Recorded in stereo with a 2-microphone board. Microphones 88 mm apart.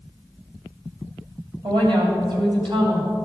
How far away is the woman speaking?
About 2.5 m.